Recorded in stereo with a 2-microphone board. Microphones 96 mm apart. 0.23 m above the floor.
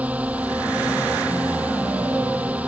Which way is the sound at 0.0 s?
15° right (ahead or behind).